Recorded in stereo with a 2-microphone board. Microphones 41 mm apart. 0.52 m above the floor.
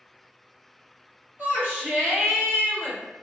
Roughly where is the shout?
Right.